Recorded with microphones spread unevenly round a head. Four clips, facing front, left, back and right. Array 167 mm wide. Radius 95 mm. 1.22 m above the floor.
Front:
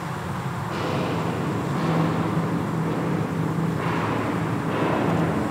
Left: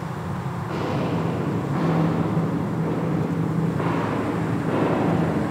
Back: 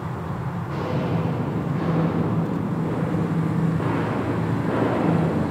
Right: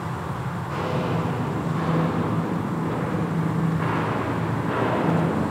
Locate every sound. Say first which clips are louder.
0.7 s footsteps: left 1 dB, even; 90° left, 8.5 m; by 5.4 s 130° left, 9 m